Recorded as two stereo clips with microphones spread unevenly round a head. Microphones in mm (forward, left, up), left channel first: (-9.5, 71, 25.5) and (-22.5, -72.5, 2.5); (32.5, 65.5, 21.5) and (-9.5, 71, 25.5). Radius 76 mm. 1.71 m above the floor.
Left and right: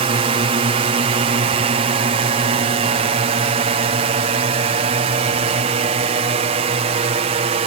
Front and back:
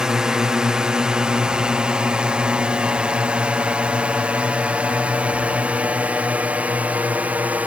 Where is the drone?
115° right; by 7.7 s 130° right.